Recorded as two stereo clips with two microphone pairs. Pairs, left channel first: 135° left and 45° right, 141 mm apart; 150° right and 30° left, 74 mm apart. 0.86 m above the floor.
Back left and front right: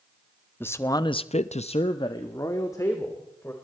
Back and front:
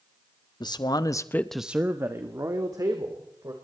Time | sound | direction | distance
0.6 | a man speaking | 150° right | 1.4 m